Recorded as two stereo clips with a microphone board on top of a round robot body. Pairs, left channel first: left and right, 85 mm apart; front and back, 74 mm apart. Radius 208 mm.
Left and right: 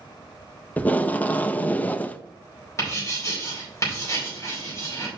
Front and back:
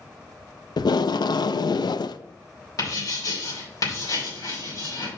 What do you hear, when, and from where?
0.8 s tape being pulled: 20° left, 0.5 m
2.8 s writing: 40° left, 4 m